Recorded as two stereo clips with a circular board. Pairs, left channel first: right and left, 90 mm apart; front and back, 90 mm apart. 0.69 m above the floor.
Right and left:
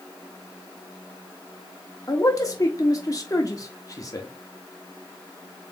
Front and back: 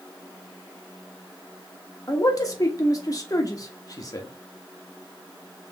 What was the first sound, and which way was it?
A man speaking, 45° right.